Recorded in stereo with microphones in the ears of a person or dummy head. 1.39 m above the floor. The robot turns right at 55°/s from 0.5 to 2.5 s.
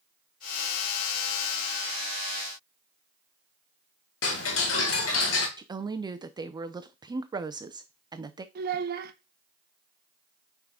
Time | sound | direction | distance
4.2 | ticking | 70° left (ahead or behind) | 1.7 m
5.6 | a woman speaking | 15° right (ahead or behind) | 0.6 m
8.6 | a child speaking | 60° right (ahead or behind) | 0.9 m